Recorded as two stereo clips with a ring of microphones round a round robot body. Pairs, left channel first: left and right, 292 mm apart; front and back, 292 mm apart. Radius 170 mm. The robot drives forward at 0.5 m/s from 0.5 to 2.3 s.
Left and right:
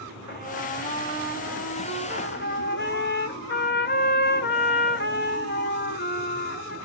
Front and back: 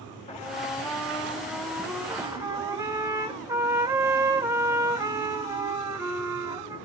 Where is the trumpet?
60° left, 1.9 m; by 6.8 s 105° left, 1.8 m.